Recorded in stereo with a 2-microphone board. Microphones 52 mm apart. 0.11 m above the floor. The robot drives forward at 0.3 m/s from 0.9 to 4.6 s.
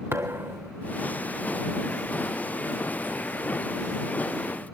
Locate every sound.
0.1 s a thud: 60° right (ahead or behind), 1.4 m